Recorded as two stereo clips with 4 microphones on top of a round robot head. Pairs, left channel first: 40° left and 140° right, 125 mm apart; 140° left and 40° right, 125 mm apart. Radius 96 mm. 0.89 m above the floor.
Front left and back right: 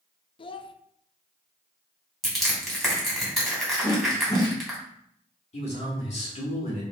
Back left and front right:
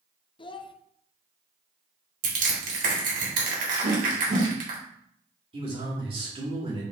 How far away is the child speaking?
About 0.7 m.